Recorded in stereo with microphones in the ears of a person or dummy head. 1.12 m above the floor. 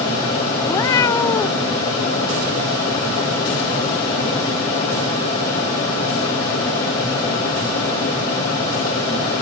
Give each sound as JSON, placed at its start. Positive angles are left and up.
{"t": 0.7, "sound": "a cat meowing", "side_deg": 15}